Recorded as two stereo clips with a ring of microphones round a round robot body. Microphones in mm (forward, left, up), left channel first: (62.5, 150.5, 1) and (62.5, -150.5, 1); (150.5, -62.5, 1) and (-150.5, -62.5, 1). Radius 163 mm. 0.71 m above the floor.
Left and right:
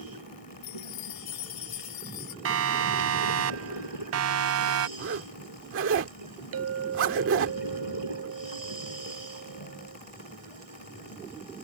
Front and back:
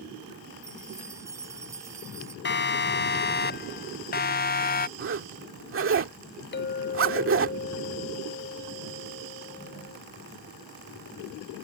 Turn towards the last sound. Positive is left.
turn(degrees=-55)